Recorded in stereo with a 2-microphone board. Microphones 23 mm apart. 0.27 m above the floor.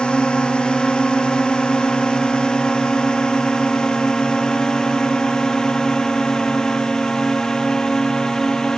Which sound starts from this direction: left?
A drone, at 0.0 s.